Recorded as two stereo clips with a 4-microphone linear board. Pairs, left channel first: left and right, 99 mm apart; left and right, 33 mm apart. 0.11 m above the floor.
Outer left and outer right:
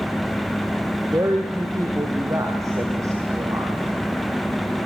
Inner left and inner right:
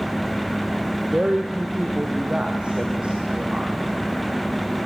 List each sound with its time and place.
1.1 s a woman speaking: 30° right (ahead or behind), 3 m